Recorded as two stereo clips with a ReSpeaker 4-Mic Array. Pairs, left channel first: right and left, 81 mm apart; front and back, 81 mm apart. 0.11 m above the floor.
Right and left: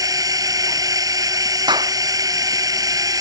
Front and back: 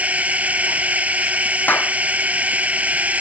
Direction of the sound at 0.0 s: 115° left.